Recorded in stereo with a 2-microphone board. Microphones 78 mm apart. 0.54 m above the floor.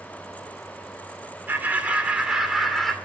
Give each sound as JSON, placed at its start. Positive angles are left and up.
{"t": 1.5, "sound": "laughter", "side_deg": -25, "distance_m": 2.0}